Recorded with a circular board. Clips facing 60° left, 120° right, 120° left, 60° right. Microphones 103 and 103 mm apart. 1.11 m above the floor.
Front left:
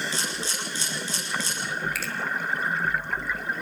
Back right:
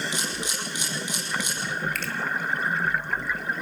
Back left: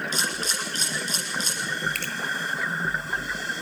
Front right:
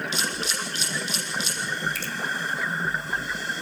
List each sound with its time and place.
0.1 s a camera shutter: 165° left, 7 m
1.9 s a finger snap: 145° left, 2.5 m